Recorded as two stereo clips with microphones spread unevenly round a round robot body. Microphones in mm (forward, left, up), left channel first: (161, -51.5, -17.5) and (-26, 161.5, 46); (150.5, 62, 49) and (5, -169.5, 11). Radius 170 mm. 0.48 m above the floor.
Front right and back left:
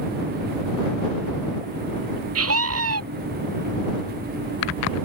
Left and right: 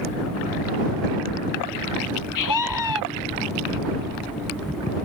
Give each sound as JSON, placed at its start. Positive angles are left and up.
{"t": 2.4, "sound": "a scream", "azimuth_deg": 95}